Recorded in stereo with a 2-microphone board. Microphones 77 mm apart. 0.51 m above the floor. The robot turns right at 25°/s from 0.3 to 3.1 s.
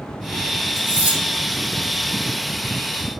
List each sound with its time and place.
0.8 s cutlery clinking: 35° right (ahead or behind), 0.7 m; by 1.2 s 25° right (ahead or behind), 0.7 m